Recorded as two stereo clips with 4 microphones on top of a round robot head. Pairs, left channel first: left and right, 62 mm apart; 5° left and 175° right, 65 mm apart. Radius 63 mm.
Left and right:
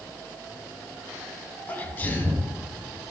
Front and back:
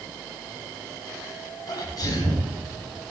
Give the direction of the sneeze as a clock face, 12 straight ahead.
11 o'clock.